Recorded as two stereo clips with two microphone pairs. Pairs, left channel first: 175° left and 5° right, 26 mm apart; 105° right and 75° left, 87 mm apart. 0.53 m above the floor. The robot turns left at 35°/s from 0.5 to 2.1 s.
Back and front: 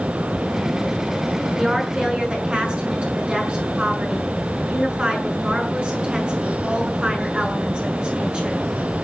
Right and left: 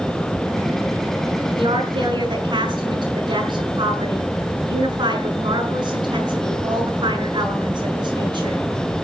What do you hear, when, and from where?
1.6 s a woman speaking: 65° left, 7 m; by 8.6 s 45° left, 7 m